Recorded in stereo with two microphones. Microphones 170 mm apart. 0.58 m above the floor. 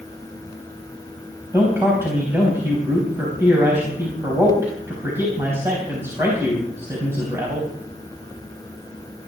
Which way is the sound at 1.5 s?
15° right (ahead or behind).